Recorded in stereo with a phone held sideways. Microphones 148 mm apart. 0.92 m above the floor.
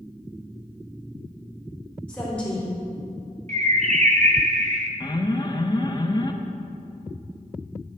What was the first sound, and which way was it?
A woman speaking, 10° left (ahead or behind).